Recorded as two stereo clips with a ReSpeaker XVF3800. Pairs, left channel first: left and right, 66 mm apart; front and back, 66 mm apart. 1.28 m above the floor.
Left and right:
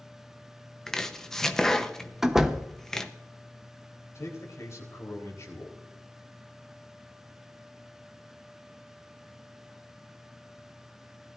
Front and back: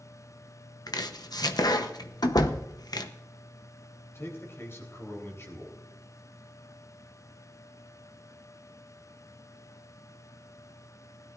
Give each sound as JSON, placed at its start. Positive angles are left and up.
{"t": 0.9, "sound": "chopping", "azimuth_deg": 5, "distance_m": 0.9}
{"t": 2.2, "sound": "a door slam", "azimuth_deg": -5, "distance_m": 0.9}
{"t": 4.2, "sound": "a man speaking", "azimuth_deg": 50, "distance_m": 3.5}